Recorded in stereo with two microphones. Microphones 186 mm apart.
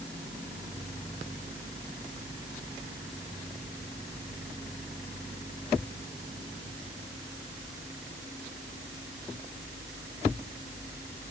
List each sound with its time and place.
Only background noise.